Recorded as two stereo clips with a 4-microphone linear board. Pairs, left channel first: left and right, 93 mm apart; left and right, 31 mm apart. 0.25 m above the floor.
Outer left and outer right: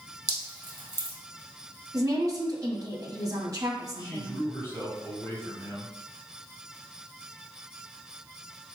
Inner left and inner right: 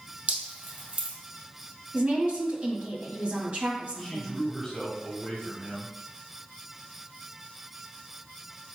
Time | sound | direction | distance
0.3 | dripping | 40° right (ahead or behind) | 1.9 m
1.9 | a woman speaking | 40° right (ahead or behind) | 1.6 m
4.0 | a man speaking | 25° left (ahead or behind) | 1.7 m